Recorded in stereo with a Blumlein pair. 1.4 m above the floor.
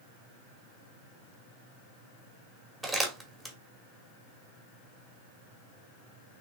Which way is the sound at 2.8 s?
10° right.